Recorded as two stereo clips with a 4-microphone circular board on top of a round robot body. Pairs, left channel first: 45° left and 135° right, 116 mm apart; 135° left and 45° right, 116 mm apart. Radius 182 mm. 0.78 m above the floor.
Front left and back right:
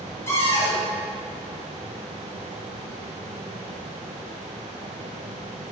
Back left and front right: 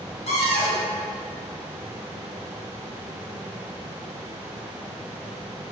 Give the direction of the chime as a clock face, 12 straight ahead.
I don't hear a chime.